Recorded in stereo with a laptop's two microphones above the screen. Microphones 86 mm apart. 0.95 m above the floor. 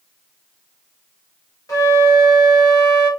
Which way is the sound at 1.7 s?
40° left (ahead or behind).